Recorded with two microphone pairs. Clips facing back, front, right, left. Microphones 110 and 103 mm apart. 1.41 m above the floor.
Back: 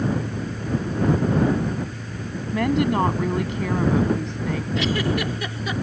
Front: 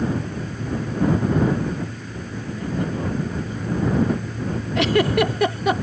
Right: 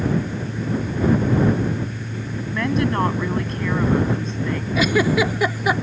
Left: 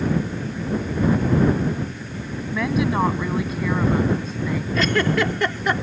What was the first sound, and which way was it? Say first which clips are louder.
A woman speaking: back 7 dB, even; 175° left.